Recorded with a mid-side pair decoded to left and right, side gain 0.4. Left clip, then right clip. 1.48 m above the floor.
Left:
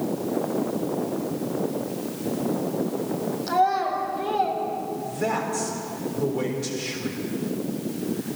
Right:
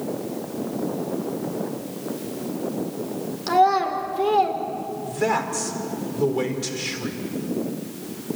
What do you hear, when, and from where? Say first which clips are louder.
3.5 s a child speaking: right 4 dB; 70° right, 3.5 m
5.0 s a man speaking: right 5 dB; 50° right, 4.5 m